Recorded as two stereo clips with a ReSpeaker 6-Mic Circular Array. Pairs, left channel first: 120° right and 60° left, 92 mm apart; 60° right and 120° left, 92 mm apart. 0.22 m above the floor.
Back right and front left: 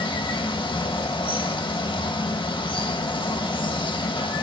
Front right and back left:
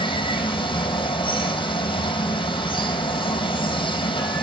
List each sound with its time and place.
0.0 s running water: 90° right, 2.5 m